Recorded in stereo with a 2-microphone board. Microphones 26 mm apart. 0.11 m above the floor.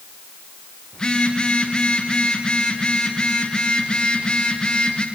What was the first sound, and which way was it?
A phone buzzing, 35° left (ahead or behind).